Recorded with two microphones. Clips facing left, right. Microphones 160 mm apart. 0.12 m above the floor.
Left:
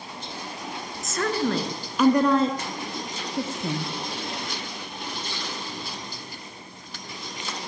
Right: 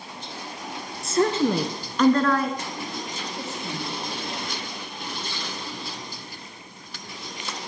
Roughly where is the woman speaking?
Right.